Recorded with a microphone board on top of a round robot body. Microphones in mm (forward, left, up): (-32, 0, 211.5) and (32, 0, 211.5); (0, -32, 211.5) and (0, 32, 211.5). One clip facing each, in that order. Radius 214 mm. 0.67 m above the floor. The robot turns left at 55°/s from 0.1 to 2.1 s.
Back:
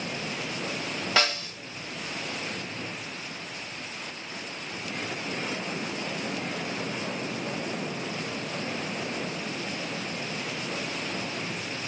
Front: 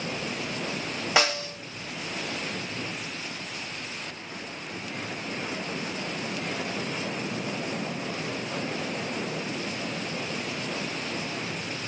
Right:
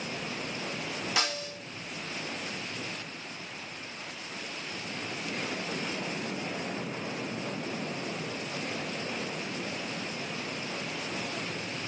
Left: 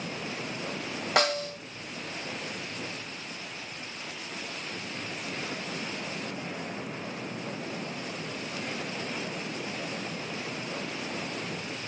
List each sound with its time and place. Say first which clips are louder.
1.2 s a snare drum: front 2 dB, left 9 dB; 75° left, 1.4 m; by 1.6 s 50° left, 1.4 m